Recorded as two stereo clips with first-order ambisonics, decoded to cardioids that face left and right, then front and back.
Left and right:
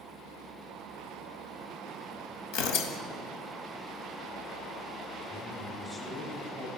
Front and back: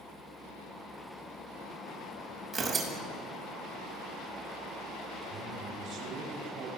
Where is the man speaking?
165° left, 1.3 m.